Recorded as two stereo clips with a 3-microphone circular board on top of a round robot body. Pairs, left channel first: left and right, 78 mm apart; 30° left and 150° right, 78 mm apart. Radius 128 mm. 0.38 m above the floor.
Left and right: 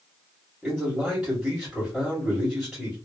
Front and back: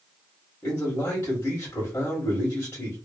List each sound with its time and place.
0.6 s a man speaking: 5° right, 2 m